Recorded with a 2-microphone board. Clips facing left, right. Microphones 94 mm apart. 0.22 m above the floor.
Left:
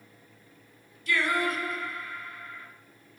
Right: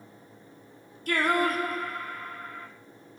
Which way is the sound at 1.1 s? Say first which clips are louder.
Right 3 dB; 50° right (ahead or behind).